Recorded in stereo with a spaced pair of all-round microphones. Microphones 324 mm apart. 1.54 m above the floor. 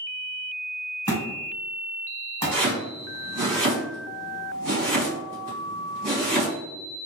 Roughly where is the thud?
Centre.